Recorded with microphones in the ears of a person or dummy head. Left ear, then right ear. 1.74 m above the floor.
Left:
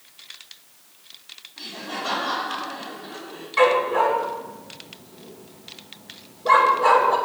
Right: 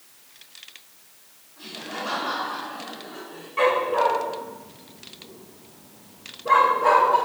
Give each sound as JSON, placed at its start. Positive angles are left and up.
{"t": 1.6, "sound": "laughter", "side_deg": 70, "distance_m": 4.0}
{"t": 3.6, "sound": "a dog barking", "side_deg": 45, "distance_m": 2.0}